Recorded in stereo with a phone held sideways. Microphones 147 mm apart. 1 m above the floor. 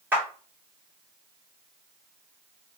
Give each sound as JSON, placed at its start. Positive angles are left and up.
{"t": 0.1, "sound": "a clap", "side_deg": -15, "distance_m": 1.5}